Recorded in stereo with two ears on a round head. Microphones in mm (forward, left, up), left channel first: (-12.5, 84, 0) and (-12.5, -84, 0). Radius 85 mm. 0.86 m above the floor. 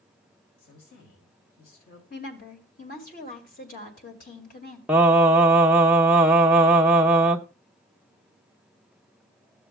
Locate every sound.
0.6 s a woman speaking: 60° left (ahead or behind), 4 m
2.1 s a woman speaking: 45° left (ahead or behind), 2.0 m
4.9 s singing: 5° right (ahead or behind), 0.6 m